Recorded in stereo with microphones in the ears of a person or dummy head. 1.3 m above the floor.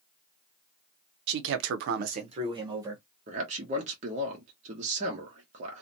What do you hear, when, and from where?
1.3 s a man speaking: 65° right (ahead or behind), 0.6 m; by 3.0 s 10° right (ahead or behind), 1.0 m
3.3 s a man speaking: 35° right (ahead or behind), 0.6 m